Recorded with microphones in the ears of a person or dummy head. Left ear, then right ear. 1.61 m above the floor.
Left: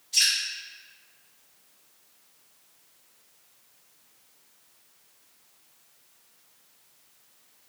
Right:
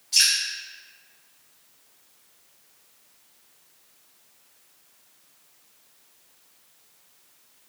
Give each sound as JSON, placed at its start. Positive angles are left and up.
{"t": 0.1, "sound": "dripping", "side_deg": -45, "distance_m": 0.9}